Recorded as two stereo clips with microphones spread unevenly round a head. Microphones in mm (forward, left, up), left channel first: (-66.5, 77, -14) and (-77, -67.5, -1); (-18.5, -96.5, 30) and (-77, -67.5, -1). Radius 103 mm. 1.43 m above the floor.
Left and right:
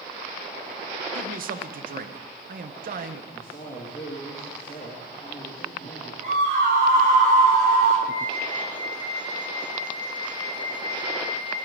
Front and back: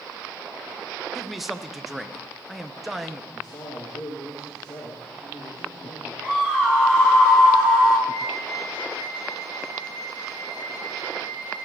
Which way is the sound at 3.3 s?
20° left.